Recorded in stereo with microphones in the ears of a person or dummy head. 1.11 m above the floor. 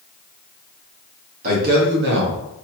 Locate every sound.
1.4 s a man speaking: 50° right (ahead or behind), 1.4 m; by 2.6 s 70° right (ahead or behind), 0.8 m